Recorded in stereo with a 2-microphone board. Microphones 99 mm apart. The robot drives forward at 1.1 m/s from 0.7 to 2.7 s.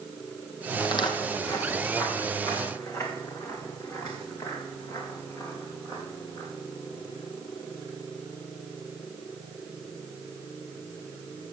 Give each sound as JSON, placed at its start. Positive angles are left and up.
{"t": 0.8, "sound": "footsteps", "side_deg": 50, "distance_m": 0.8}